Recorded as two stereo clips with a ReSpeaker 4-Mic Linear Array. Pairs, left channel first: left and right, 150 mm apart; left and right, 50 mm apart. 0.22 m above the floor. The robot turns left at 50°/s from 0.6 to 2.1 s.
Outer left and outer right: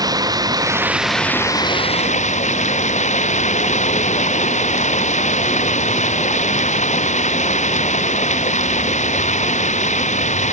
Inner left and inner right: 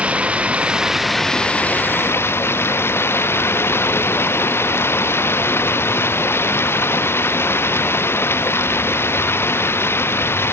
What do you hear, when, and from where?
0.0 s running water: 155° right; by 10.5 s 130° left